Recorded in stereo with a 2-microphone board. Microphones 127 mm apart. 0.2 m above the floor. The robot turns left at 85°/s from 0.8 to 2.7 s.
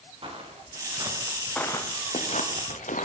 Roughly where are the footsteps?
Right.